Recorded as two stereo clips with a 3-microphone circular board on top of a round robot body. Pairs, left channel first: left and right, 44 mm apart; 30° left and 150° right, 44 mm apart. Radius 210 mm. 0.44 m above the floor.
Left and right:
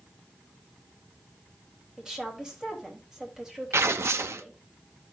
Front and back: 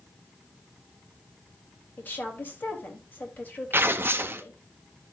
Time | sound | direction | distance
2.0 | a woman speaking | 15° right | 3 m
3.7 | tearing paper | 110° right | 0.5 m